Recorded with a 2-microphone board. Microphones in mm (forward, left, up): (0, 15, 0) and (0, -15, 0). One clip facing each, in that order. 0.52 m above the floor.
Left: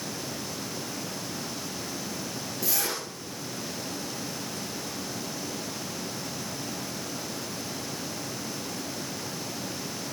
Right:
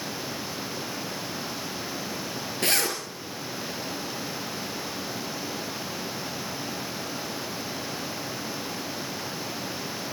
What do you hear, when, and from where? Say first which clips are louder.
2.6 s a zipper: right 6 dB; 65° right (ahead or behind), 5 m